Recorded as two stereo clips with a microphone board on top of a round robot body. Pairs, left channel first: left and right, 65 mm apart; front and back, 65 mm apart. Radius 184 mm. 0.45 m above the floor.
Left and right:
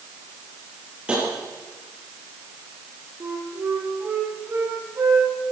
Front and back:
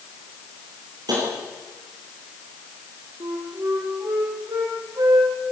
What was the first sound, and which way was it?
Tapping, 165° right.